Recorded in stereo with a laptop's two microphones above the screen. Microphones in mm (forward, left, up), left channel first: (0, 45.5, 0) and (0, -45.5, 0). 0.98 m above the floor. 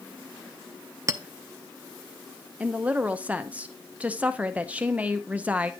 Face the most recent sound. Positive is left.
turn(degrees=-15)  # may be behind; listen again after turning